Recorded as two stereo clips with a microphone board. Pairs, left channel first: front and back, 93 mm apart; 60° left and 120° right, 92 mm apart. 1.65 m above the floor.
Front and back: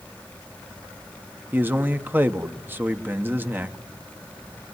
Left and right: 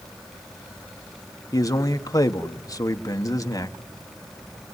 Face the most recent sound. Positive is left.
turn(degrees=110)